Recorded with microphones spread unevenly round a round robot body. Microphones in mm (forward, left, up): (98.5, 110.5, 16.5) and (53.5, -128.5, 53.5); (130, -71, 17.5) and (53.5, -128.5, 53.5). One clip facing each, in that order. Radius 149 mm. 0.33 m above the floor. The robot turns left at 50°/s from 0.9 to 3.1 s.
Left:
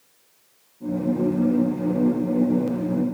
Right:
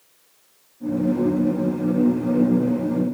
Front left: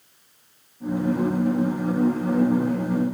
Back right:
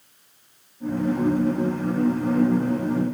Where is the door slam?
No door slam in this recording.